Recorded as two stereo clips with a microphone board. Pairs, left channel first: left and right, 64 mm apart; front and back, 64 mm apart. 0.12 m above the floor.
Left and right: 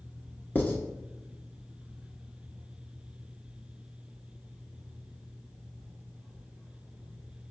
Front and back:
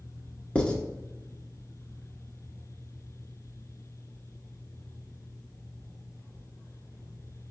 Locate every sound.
0.6 s writing: 55° left, 1.0 m